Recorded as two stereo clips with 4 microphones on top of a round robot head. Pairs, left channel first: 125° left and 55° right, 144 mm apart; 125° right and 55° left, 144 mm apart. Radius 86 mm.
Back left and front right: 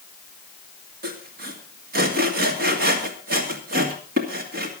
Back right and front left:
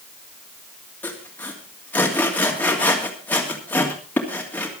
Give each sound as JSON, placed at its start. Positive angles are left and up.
{"t": 1.0, "sound": "sawing", "azimuth_deg": -50, "distance_m": 3.0}